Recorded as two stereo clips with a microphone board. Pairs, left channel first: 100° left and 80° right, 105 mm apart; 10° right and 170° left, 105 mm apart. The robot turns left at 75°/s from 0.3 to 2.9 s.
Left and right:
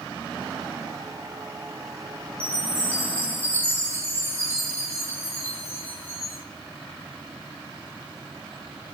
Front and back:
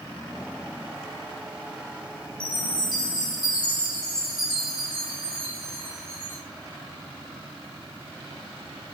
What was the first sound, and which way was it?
A chime, 70° left.